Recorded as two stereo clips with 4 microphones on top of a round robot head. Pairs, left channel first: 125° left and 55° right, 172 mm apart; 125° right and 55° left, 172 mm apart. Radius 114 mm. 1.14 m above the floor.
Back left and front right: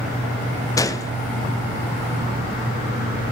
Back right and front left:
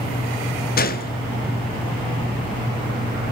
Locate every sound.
0.8 s a gunshot: 160° right, 0.9 m